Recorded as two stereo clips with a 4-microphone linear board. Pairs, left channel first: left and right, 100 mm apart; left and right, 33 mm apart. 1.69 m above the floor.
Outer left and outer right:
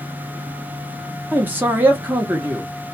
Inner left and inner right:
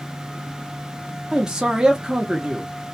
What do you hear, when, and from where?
1.3 s a man speaking: 20° right (ahead or behind), 0.7 m